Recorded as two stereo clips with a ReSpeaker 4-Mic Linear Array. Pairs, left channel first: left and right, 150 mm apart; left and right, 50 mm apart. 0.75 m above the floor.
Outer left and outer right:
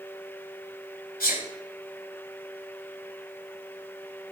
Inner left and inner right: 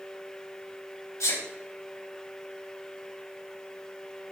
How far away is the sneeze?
About 4 m.